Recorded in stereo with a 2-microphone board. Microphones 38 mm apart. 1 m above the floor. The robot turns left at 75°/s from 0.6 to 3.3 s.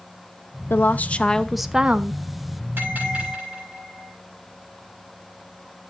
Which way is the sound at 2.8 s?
120° right.